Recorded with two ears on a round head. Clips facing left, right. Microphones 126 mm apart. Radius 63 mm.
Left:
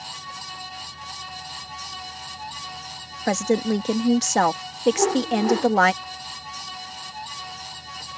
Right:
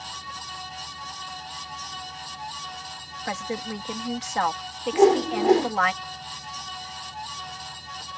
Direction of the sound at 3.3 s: 55° left (ahead or behind).